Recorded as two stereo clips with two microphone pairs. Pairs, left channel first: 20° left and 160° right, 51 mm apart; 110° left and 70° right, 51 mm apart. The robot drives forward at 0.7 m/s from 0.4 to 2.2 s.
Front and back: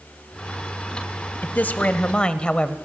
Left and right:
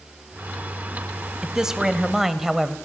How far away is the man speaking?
About 1.4 m.